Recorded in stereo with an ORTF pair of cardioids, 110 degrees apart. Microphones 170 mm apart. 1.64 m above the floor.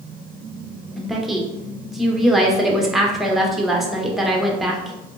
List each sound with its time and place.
1.0 s a woman speaking: straight ahead, 0.8 m